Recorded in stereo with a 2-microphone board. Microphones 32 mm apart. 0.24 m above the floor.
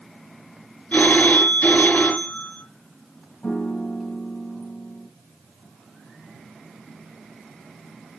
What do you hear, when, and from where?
0.9 s a phone ringing: 70° left (ahead or behind), 3 m
3.4 s a piano: 45° left (ahead or behind), 3.5 m